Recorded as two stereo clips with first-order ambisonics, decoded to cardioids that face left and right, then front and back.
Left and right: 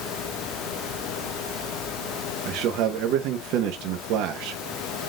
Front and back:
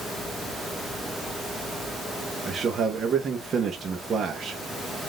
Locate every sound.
2.5 s a man speaking: 110° right, 0.7 m